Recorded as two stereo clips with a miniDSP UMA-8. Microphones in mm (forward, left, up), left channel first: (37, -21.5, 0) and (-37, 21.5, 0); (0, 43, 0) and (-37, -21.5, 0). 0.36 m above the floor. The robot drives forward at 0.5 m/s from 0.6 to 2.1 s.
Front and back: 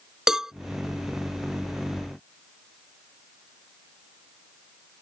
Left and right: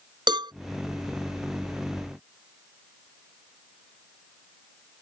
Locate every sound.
0.3 s a cowbell: 125° right